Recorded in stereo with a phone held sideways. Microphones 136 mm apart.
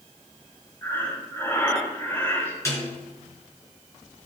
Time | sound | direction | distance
0.8 | breathing | 20° left (ahead or behind) | 7 m
2.6 | a snare drum | 20° left (ahead or behind) | 5 m